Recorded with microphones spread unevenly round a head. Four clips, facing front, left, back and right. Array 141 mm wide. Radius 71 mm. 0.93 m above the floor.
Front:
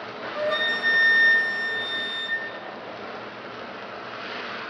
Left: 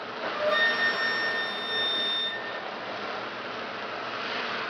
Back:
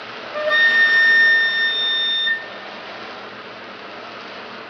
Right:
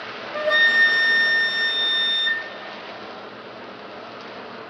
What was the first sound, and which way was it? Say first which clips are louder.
A flute: right 6 dB, back 8 dB; 145° right.